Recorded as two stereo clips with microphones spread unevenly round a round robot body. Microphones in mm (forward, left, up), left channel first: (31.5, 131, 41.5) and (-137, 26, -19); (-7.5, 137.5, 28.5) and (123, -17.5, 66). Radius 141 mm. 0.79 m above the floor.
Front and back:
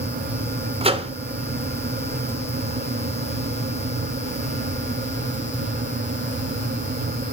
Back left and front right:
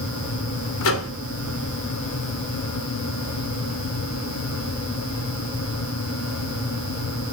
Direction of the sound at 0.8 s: 150° left.